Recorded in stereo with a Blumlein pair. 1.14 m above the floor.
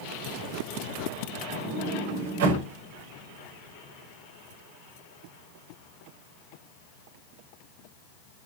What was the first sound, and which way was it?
A sliding door, 55° right.